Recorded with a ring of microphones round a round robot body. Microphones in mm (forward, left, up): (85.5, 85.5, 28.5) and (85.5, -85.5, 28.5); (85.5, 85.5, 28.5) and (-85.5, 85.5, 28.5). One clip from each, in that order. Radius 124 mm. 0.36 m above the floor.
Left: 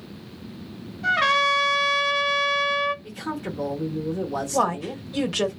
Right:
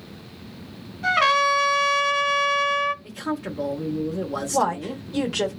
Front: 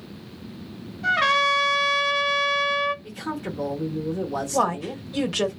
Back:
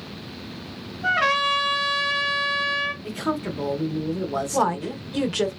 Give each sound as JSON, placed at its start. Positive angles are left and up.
{"t": 1.0, "sound": "a trumpet", "azimuth_deg": -85, "distance_m": 1.4}
{"t": 3.0, "sound": "a man speaking", "azimuth_deg": -160, "distance_m": 0.8}
{"t": 4.5, "sound": "a woman speaking", "azimuth_deg": 105, "distance_m": 0.9}